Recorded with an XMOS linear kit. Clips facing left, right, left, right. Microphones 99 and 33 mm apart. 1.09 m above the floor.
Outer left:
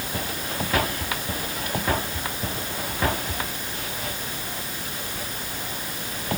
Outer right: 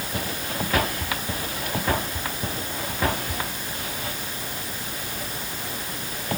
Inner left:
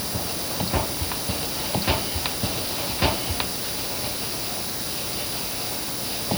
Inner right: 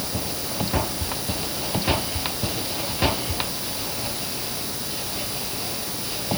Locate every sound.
Only background noise.